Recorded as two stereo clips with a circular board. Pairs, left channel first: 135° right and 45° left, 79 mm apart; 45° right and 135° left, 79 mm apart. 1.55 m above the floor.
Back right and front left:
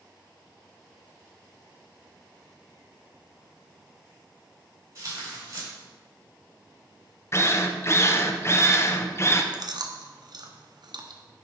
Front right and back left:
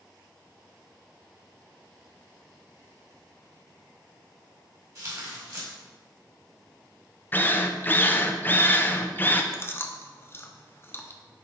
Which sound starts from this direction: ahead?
Chewing, at 9.5 s.